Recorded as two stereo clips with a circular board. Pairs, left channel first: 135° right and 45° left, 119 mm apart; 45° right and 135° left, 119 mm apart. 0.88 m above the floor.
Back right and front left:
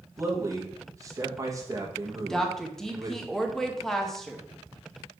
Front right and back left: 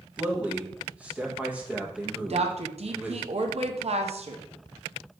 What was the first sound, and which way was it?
A man speaking, 70° left.